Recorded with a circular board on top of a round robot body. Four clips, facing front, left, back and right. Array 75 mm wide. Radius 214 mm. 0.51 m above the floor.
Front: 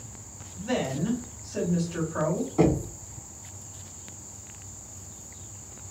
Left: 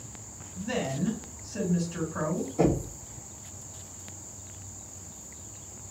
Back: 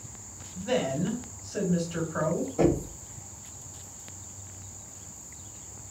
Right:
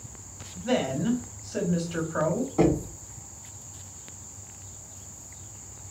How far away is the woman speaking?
About 2 m.